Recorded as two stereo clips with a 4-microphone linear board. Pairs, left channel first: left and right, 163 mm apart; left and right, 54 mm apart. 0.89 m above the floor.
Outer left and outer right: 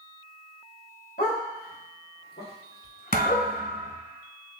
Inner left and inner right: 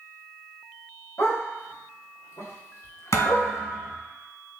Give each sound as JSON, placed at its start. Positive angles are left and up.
{"t": 1.2, "sound": "a dog barking", "side_deg": 65, "distance_m": 1.9}
{"t": 3.1, "sound": "a thud", "side_deg": 70, "distance_m": 1.8}